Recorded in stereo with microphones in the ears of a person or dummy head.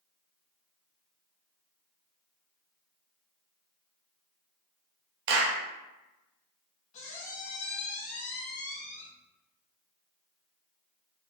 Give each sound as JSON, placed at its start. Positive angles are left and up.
{"t": 5.3, "sound": "a clap", "side_deg": -65, "distance_m": 0.6}
{"t": 6.9, "sound": "a squeak", "side_deg": 40, "distance_m": 1.3}